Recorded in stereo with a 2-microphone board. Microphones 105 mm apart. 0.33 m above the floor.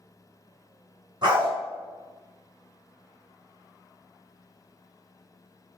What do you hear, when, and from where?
1.2 s a dog barking: 45° right (ahead or behind), 1.4 m